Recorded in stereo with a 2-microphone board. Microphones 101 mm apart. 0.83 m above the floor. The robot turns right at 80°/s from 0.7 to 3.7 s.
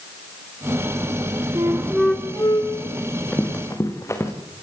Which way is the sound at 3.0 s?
15° right (ahead or behind).